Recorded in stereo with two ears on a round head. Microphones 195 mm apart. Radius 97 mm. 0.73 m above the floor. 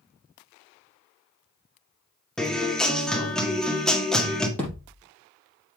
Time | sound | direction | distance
2.4 | a guitar | 5° left (ahead or behind) | 1.7 m
4.6 | a thud | 5° left (ahead or behind) | 5.5 m